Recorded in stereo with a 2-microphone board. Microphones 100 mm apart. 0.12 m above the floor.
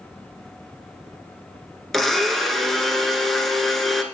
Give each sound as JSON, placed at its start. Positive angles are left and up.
{"t": 1.9, "sound": "a blender", "side_deg": 0, "distance_m": 0.9}